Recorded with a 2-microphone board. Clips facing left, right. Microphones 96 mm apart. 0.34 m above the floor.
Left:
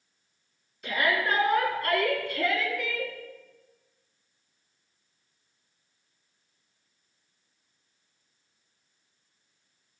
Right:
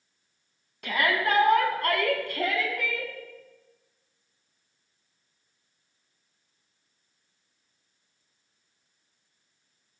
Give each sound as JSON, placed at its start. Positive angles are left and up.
{"t": 0.8, "sound": "a shout", "side_deg": -65, "distance_m": 2.5}